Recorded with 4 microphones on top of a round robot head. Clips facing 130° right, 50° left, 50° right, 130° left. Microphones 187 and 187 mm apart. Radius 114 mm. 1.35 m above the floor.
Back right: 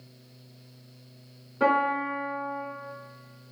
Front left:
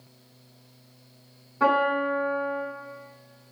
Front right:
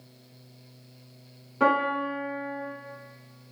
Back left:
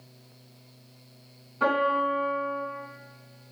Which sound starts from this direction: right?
A piano, at 1.6 s.